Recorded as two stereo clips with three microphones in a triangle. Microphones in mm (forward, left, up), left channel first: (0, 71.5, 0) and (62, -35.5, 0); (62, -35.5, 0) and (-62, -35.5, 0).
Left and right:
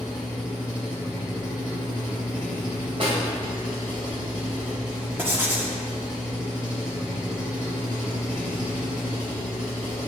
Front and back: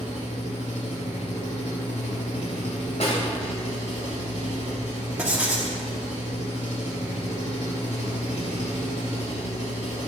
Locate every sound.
0.0 s an engine running: 25° left, 3.5 m
3.0 s a snare drum: 25° right, 3 m
5.2 s writing: 110° right, 1.4 m